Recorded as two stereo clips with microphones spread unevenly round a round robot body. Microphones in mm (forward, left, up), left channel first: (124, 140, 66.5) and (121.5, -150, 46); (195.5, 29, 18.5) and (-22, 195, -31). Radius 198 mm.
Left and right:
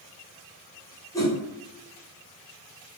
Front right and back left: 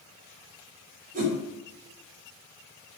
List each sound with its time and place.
1.1 s a whoosh: 170° left, 1.0 m